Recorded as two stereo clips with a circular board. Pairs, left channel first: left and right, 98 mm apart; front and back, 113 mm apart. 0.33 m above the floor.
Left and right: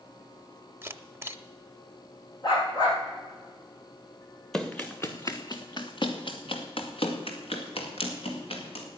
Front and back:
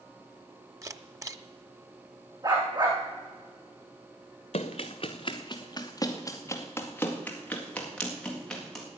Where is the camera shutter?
135° right, 0.6 m.